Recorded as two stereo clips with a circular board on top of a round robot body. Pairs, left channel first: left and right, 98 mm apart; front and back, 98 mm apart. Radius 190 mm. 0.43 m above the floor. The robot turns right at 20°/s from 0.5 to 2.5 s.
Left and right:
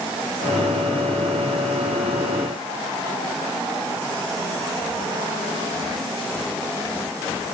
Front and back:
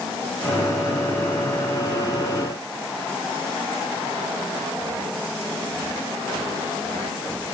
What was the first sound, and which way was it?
Only background noise.